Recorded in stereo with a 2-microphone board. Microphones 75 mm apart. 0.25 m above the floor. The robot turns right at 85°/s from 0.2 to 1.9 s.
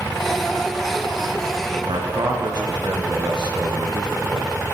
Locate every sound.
1.8 s a man speaking: 65° right (ahead or behind), 5 m; by 4.8 s 70° right (ahead or behind), 5 m